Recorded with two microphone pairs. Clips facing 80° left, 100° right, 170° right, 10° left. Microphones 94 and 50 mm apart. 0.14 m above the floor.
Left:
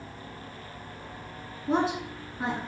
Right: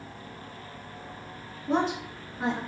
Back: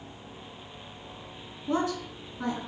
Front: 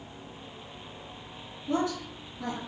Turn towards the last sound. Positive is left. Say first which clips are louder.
# even, back 1 dB
turn(degrees=165)